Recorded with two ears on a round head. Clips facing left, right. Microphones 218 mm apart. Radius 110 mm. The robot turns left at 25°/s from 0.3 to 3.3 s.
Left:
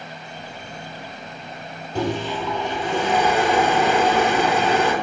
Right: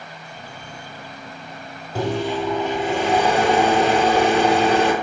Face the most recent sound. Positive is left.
turn(degrees=-40)